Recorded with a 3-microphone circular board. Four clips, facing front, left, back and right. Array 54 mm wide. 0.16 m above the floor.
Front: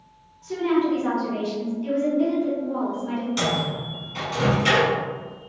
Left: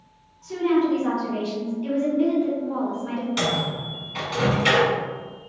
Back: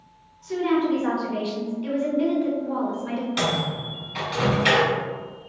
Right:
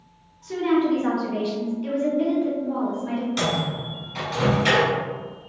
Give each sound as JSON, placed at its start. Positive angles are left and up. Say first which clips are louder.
{"t": 0.4, "sound": "a woman speaking", "louder": "even, even", "azimuth_deg": -75, "distance_m": 1.1}
{"t": 3.4, "sound": "a microwave", "louder": "even, back 1 dB", "azimuth_deg": 145, "distance_m": 1.3}